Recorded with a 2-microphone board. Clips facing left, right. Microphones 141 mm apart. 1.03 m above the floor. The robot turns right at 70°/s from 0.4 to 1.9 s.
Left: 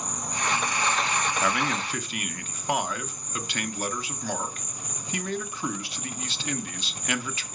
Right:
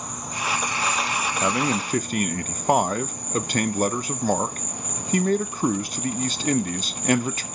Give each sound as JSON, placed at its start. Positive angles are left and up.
{"t": 0.0, "sound": "an insect", "azimuth_deg": 180, "distance_m": 0.7}
{"t": 1.4, "sound": "a man speaking", "azimuth_deg": -155, "distance_m": 0.5}